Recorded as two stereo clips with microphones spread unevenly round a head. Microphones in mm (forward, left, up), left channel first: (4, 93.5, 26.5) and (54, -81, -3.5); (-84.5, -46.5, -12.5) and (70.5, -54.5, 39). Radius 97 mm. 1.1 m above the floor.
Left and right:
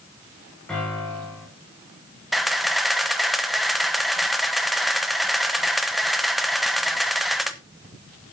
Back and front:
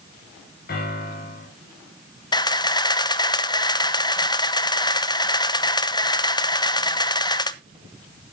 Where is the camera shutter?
155° right, 0.9 m.